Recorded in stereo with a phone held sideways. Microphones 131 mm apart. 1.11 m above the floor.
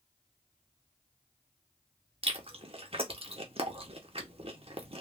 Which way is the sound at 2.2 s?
50° right (ahead or behind).